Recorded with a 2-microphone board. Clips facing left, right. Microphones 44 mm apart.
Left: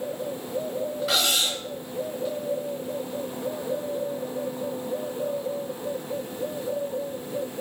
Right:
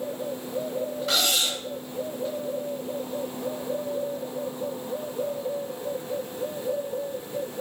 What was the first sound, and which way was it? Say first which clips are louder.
Cutlery clinking: even; centre (ahead or behind).